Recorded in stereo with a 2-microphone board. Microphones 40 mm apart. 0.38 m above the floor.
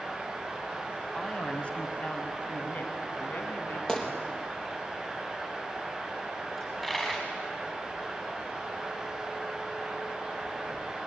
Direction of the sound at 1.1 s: 20° left (ahead or behind).